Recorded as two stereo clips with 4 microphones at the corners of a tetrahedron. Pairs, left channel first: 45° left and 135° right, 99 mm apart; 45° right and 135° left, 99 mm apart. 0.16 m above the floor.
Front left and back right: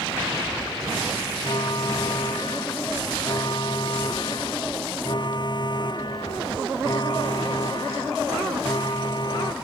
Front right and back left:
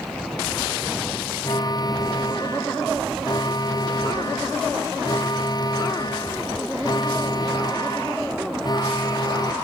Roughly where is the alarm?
Ahead.